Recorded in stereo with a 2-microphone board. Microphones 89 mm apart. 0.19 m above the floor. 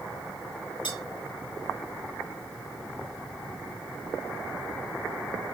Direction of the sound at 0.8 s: 70° left (ahead or behind).